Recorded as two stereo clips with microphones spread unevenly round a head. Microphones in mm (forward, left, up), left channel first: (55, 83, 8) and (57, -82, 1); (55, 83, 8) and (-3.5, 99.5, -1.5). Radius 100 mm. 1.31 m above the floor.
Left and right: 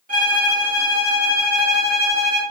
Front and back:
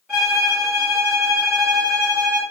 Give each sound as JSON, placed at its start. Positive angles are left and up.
{"t": 0.1, "sound": "a violin", "azimuth_deg": -115, "distance_m": 1.7}